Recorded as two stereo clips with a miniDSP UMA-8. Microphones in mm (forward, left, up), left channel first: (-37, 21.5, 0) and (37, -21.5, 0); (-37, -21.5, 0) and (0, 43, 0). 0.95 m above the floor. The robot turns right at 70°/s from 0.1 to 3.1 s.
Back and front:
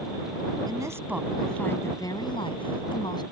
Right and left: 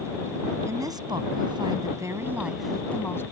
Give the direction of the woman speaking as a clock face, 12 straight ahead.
12 o'clock.